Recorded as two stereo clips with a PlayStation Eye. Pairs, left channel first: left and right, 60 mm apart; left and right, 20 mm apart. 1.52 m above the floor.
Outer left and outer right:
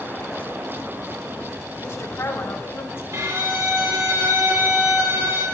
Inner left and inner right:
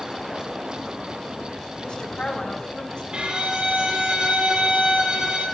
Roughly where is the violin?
Right.